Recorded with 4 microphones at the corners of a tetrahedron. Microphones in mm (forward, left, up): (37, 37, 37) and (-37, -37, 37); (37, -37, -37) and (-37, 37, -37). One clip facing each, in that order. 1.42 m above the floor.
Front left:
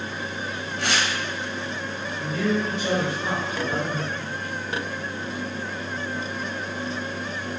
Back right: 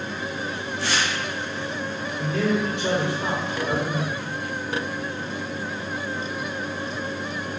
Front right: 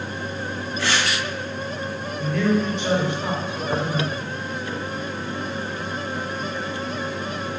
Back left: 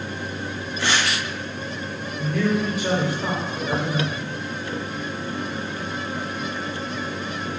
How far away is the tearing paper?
About 0.8 m.